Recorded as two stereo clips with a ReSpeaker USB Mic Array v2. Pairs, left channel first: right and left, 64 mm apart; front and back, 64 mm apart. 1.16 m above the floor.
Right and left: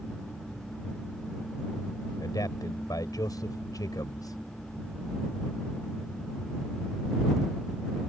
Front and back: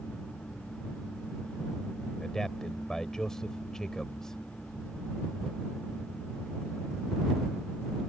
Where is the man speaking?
80° right.